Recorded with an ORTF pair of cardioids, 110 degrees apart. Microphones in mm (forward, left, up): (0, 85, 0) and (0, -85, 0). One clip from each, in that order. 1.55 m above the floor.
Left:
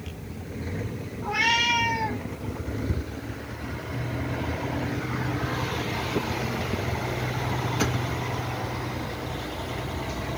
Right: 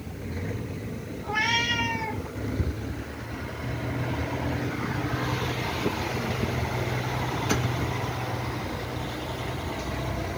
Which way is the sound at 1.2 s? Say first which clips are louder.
Left 3 dB; 65° left.